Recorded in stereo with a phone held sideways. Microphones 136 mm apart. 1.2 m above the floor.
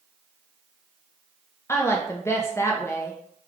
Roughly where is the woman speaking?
Centre.